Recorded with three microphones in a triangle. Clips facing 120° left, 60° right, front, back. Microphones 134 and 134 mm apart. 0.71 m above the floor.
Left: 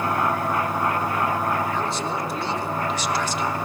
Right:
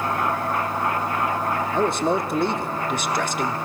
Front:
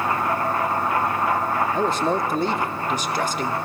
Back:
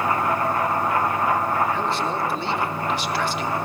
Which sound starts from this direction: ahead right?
A man speaking, at 1.7 s.